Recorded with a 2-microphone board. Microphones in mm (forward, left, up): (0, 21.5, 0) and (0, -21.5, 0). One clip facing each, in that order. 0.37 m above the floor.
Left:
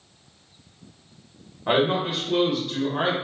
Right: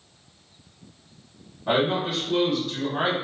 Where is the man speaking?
35° left (ahead or behind), 1.1 m; by 3.1 s 10° right (ahead or behind), 1.2 m.